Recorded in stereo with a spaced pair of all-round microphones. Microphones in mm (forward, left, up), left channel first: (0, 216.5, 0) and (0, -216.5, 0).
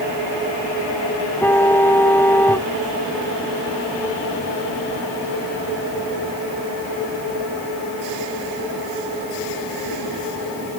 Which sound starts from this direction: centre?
A car horn, at 1.4 s.